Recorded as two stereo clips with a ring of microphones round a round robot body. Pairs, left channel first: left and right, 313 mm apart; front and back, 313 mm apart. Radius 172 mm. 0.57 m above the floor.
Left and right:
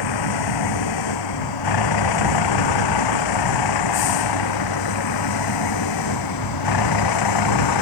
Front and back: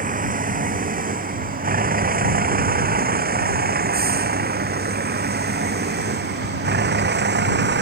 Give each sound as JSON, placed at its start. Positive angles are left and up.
{"t": 0.0, "sound": "a vehicle", "azimuth_deg": 115}